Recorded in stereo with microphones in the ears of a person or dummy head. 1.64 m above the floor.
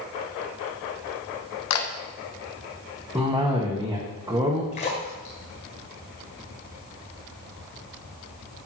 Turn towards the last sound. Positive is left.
turn(degrees=35)  # may be behind; listen again after turning